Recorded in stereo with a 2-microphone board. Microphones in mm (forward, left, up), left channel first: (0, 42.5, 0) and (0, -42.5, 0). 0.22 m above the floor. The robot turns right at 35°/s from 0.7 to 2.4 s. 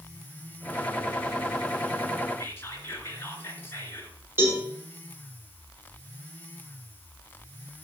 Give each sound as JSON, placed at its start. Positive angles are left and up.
{"t": 2.4, "sound": "whispering", "side_deg": 25, "distance_m": 2.5}
{"t": 4.4, "sound": "a cowbell", "side_deg": -25, "distance_m": 4.0}